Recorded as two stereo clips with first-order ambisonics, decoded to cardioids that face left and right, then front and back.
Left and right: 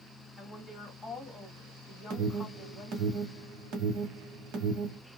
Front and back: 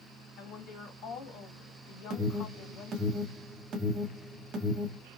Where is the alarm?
125° right, 1.4 m.